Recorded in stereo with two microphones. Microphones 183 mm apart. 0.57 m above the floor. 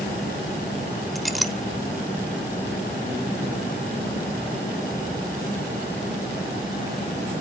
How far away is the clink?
About 0.5 m.